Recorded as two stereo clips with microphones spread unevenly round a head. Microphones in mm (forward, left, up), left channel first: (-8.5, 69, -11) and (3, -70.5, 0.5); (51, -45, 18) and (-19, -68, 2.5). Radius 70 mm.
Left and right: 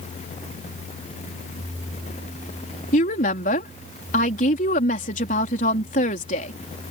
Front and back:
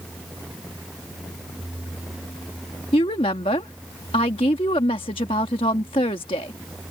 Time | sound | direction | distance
2.9 | a woman speaking | 55° left | ?